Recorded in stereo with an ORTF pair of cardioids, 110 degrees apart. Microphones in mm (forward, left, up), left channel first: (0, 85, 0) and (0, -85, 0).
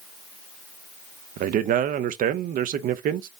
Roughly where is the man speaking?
Ahead right.